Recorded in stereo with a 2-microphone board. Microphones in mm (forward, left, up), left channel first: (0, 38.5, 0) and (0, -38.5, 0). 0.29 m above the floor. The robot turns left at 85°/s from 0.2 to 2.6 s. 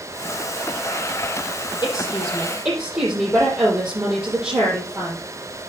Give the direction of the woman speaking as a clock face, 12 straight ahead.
10 o'clock.